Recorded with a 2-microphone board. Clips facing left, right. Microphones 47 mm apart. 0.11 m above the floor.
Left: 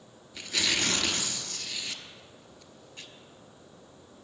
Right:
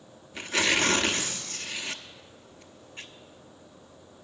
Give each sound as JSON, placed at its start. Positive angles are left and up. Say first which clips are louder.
{"t": 0.3, "sound": "tearing paper", "louder": "right 5 dB", "side_deg": -30, "distance_m": 0.8}